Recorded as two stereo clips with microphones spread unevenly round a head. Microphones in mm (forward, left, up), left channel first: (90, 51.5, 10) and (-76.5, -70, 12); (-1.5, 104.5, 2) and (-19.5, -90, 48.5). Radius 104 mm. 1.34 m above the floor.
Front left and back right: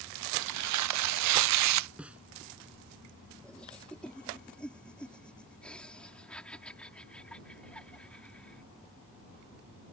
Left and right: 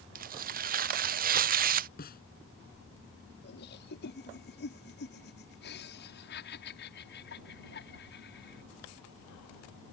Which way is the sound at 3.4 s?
120° left.